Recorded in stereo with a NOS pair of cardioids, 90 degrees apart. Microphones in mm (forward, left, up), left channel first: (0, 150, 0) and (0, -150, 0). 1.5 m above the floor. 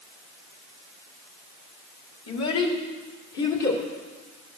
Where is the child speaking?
60° left, 2.5 m; by 3.8 s 75° left, 3.5 m.